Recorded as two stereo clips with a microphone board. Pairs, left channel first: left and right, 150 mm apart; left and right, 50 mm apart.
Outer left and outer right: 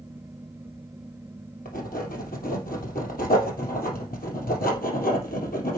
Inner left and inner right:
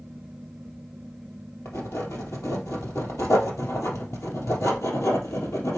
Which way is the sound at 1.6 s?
75° left (ahead or behind).